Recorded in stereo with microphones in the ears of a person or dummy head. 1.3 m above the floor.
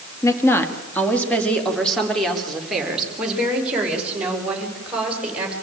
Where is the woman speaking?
15° left (ahead or behind), 2 m; by 5.5 s 15° right (ahead or behind), 7 m.